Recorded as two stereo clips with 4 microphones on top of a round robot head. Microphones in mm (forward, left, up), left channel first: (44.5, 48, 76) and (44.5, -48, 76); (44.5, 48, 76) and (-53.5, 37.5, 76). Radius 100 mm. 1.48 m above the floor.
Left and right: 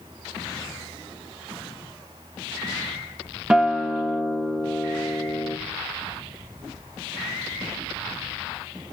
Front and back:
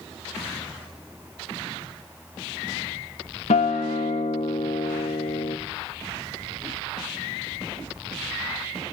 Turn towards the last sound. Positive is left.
turn(degrees=-10)